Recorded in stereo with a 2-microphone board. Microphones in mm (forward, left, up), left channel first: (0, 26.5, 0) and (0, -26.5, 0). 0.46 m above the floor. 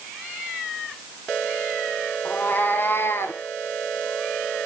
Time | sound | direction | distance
2.2 | a cat meowing | 35° left (ahead or behind) | 1.4 m